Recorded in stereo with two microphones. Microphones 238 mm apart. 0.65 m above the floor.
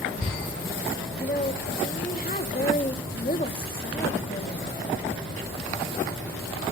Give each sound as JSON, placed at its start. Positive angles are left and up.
{"t": 1.1, "sound": "a woman speaking", "side_deg": 35, "distance_m": 1.4}